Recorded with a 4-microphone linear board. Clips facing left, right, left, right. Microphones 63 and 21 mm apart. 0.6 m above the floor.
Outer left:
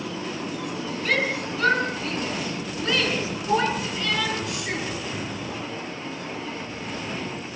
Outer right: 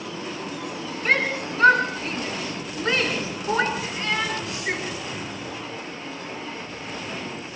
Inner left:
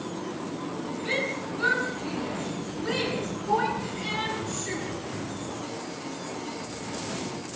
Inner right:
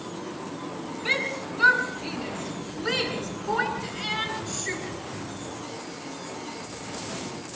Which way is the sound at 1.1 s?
35° right (ahead or behind).